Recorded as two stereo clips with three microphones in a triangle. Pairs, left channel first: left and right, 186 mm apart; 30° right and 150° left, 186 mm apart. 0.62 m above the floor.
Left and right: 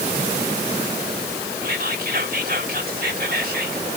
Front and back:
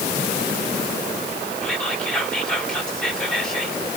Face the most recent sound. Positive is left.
turn(degrees=-115)